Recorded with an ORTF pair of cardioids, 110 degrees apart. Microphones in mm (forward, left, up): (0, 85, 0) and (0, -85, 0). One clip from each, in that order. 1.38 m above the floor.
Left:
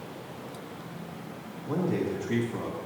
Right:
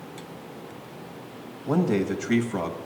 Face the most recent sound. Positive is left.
turn(degrees=-55)